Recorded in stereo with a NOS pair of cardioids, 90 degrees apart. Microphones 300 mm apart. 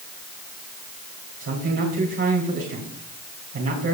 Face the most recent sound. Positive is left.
turn(degrees=-50)